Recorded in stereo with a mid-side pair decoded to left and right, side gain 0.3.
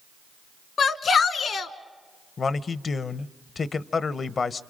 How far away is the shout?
About 1.3 m.